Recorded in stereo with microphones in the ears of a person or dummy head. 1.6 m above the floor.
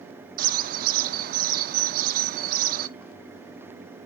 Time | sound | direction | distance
0.4 | a bird | 45° right (ahead or behind) | 0.6 m